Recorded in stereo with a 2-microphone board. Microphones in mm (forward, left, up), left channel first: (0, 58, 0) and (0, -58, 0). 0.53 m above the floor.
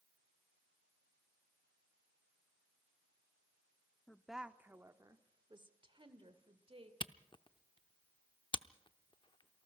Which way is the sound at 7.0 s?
45° left (ahead or behind).